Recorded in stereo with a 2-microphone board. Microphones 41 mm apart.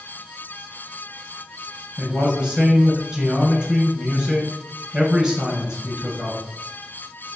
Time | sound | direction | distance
2.0 | a man speaking | 25° right (ahead or behind) | 1.6 m